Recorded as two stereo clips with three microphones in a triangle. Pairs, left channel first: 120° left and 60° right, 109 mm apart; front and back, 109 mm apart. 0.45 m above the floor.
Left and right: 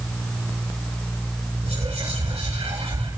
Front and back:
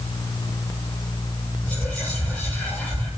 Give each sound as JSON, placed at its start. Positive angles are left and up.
{"t": 1.6, "sound": "whispering", "azimuth_deg": -85, "distance_m": 9.0}